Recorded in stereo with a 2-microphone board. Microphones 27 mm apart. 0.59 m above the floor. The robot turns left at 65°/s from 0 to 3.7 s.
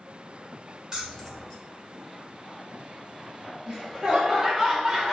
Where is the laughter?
25° right (ahead or behind), 0.8 m.